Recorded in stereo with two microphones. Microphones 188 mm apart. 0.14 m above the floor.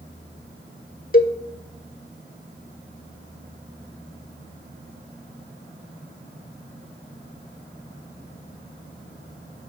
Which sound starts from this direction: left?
A cowbell, at 1.1 s.